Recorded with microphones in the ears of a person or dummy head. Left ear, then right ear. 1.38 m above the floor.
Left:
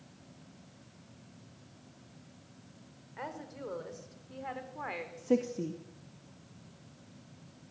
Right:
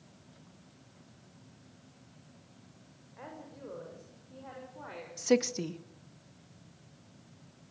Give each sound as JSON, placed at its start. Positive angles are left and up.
{"t": 3.2, "sound": "a woman speaking", "side_deg": 80, "distance_m": 6.5}
{"t": 5.2, "sound": "a woman speaking", "side_deg": -70, "distance_m": 1.6}